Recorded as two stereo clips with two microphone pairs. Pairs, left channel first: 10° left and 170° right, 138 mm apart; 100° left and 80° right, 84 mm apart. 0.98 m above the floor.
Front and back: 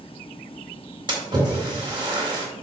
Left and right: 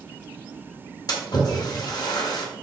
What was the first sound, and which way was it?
A splash, 135° left.